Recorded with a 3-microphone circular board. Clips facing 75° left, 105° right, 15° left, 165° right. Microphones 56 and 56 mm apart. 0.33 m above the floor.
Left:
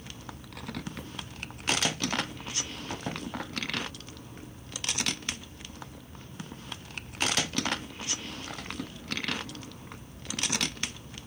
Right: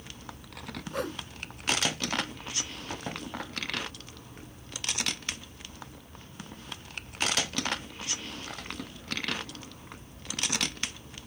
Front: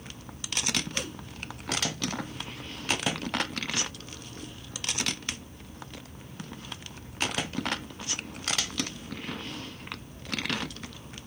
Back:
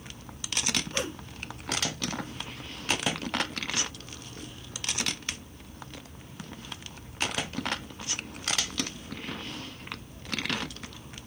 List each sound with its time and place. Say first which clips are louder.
0.9 s a whoosh: right 8 dB, back 3 dB; 100° right